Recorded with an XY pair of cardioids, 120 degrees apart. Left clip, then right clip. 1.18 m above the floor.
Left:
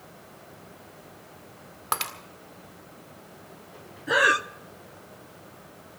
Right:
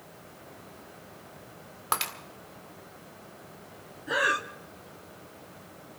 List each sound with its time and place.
1.9 s breaking glass: 5° left, 1.6 m
4.1 s breathing: 30° left, 0.7 m